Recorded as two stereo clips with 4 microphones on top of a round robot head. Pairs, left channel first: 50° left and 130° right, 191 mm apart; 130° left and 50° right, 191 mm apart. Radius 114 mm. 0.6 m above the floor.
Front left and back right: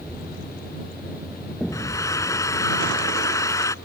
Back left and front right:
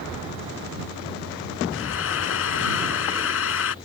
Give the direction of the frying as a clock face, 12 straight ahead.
8 o'clock.